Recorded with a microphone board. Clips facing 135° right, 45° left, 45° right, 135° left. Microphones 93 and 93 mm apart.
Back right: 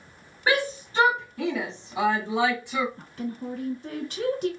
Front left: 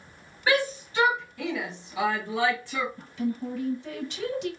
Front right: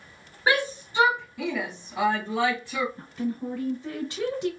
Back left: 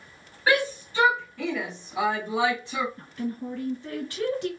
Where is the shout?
95° right, 1.8 m; by 2.9 s 165° left, 1.4 m.